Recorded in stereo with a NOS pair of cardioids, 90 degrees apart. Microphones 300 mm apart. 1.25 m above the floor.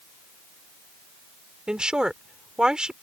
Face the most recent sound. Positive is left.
turn(degrees=-5)